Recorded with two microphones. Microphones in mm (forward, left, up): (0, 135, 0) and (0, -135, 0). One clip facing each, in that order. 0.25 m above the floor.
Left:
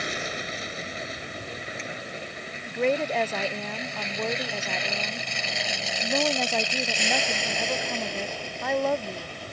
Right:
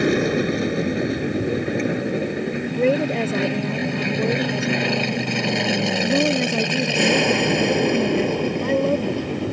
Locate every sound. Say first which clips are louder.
0.0 s an aircraft: right 17 dB; 65° right (ahead or behind); by 9.5 s 70° right (ahead or behind)
2.7 s a woman speaking: right 5 dB; 40° right (ahead or behind)